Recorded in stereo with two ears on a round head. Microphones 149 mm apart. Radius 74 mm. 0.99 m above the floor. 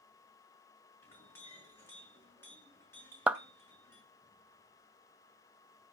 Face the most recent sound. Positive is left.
turn(degrees=-5)  # may be behind; listen again after turning